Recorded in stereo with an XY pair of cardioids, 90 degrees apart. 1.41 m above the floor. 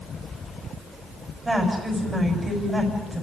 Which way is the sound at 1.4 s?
15° right.